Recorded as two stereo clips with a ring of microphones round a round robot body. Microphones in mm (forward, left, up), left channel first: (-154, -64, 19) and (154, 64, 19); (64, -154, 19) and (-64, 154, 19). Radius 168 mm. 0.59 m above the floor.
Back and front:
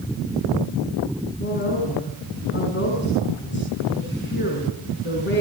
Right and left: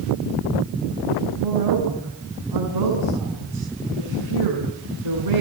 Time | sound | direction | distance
1.4 | a woman speaking | 145° left | 6.5 m